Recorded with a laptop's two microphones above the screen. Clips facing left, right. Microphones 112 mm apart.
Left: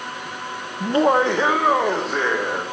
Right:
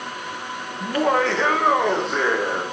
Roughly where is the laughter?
Left.